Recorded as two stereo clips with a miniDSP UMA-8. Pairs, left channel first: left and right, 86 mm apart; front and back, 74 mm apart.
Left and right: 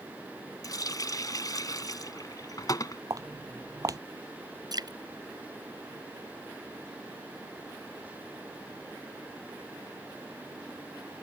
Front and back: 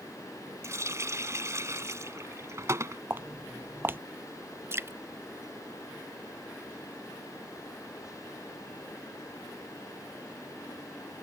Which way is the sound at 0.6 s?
135° left.